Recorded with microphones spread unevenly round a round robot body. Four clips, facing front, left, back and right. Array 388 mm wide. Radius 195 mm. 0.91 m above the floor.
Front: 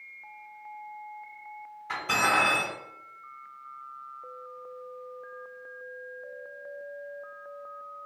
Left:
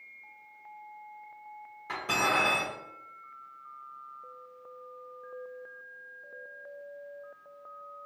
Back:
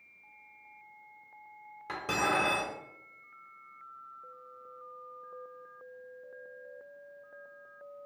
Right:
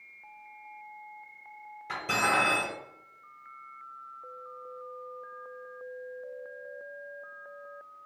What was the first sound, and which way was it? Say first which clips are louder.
Cutlery clinking: right 1 dB, front 4 dB; straight behind.